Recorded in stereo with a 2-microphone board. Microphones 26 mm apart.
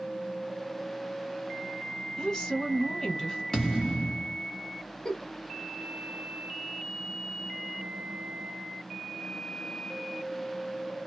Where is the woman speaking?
25° left (ahead or behind), 1.2 m.